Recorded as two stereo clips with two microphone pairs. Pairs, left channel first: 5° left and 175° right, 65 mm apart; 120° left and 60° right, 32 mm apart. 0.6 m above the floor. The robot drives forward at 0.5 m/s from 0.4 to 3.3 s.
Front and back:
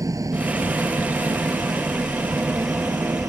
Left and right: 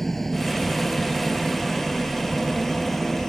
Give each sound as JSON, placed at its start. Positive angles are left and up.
{"t": 0.0, "sound": "an engine running", "azimuth_deg": -155}